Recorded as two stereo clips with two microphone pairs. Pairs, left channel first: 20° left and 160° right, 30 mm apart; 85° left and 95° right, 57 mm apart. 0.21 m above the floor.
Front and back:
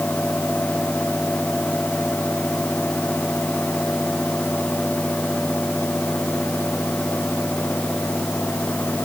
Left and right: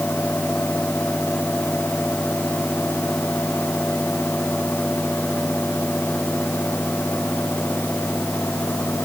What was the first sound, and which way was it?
Only background noise.